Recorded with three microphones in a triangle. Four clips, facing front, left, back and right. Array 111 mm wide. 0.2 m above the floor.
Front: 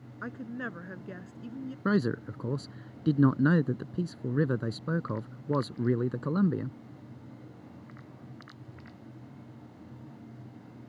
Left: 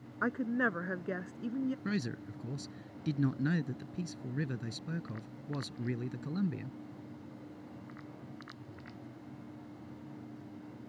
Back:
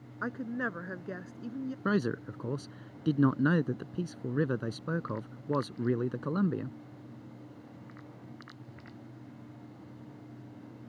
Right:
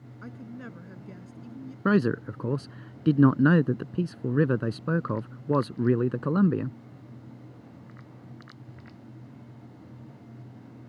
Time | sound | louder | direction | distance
0.2 | a woman speaking | left 10 dB, back 3 dB | 115° left | ?
1.9 | a man speaking | right 13 dB, front 3 dB | 85° right | ?